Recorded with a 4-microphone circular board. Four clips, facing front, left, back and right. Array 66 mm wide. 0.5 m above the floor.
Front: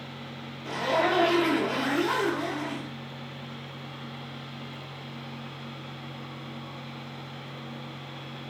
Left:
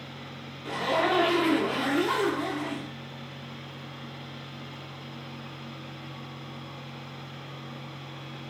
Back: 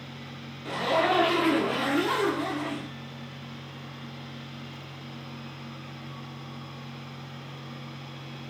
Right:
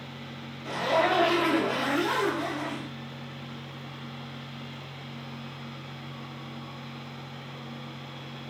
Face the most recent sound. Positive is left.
turn(degrees=145)